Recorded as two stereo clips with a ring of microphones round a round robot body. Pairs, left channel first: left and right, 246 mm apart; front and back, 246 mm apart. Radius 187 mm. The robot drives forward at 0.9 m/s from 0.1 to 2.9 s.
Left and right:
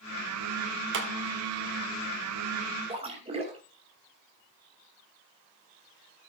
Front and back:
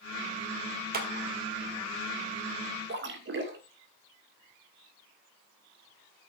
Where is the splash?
150° right, 2.0 m.